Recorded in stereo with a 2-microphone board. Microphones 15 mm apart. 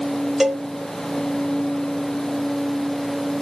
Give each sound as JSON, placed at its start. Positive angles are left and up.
{"t": 0.4, "sound": "a cowbell", "side_deg": -15, "distance_m": 0.9}